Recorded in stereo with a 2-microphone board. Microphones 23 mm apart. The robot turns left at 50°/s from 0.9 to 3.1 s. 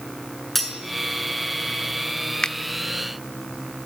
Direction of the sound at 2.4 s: 35° left (ahead or behind).